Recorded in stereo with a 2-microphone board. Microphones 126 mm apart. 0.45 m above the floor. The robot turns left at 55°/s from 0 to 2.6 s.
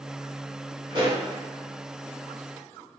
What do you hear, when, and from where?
0.9 s a pop: 40° right (ahead or behind), 1.2 m; by 1.2 s 35° right (ahead or behind), 1.2 m